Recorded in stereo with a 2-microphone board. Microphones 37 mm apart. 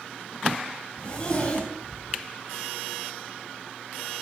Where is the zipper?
30° left (ahead or behind), 4.5 m.